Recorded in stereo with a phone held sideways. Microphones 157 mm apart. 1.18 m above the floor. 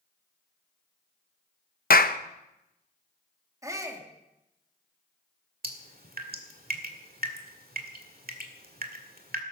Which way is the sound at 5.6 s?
70° right (ahead or behind).